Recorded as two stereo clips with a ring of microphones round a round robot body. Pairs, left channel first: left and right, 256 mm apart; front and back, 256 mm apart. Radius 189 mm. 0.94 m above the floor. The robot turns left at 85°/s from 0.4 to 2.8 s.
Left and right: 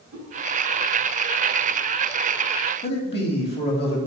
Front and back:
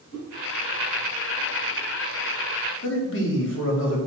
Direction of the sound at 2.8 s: 40° left.